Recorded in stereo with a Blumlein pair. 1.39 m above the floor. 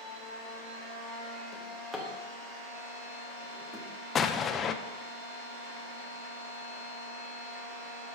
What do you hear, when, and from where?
0.0 s a machine running: 45° right, 3.5 m
1.5 s a drawer: 5° right, 1.7 m
4.2 s an explosion: 25° left, 0.6 m